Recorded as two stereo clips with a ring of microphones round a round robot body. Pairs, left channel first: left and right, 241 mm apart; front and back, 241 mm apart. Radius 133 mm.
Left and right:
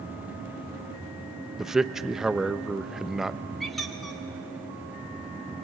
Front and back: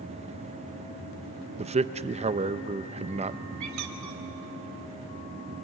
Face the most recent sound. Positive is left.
turn(degrees=180)